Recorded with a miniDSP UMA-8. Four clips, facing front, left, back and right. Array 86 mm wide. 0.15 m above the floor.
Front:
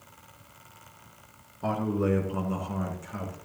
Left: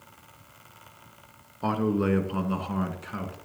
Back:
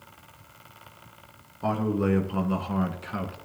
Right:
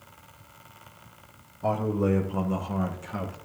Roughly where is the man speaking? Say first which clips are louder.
Even, back 2 dB; left.